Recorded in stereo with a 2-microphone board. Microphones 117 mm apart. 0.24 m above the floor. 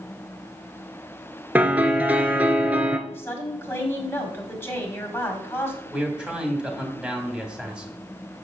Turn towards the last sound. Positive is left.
turn(degrees=-10)  # may be behind; listen again after turning